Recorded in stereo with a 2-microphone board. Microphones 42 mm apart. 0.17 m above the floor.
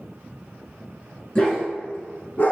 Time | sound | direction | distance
1.4 | a dog barking | 20° left (ahead or behind) | 1.0 m